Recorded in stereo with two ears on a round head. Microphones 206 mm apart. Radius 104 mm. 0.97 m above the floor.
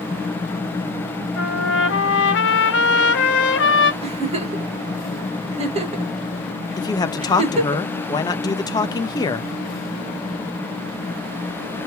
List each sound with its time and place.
1.4 s a trumpet: 50° left (ahead or behind), 1.1 m
4.0 s a giggle: 30° right (ahead or behind), 1.1 m
6.8 s a man speaking: 15° left (ahead or behind), 0.5 m